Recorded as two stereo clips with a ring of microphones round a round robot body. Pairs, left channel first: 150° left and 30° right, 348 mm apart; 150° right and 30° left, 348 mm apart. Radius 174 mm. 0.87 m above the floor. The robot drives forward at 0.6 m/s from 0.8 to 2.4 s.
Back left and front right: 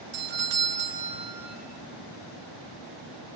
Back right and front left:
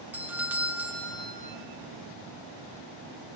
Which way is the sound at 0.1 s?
50° right.